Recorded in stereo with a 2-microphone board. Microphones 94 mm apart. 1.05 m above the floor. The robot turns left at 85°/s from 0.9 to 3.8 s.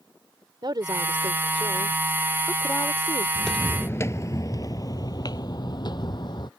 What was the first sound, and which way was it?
A woman speaking, 55° right.